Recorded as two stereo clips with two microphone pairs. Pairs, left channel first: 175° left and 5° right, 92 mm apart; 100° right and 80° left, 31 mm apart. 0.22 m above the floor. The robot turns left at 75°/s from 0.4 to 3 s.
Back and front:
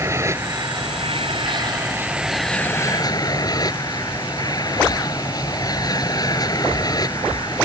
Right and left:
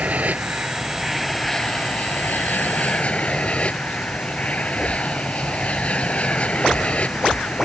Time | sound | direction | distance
0.0 | an aircraft | 50° left | ?